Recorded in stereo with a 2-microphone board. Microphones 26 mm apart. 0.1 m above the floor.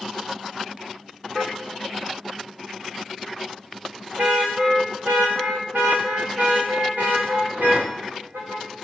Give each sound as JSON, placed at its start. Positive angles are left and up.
{"t": 1.4, "sound": "a car horn", "side_deg": -25, "distance_m": 3.0}